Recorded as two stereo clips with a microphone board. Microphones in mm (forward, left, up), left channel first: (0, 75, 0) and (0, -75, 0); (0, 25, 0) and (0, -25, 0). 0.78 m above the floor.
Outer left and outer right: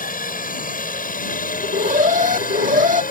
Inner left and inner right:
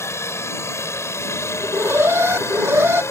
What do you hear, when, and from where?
0.0 s a helicopter: 60° left (ahead or behind)
1.6 s an alarm: 55° right (ahead or behind)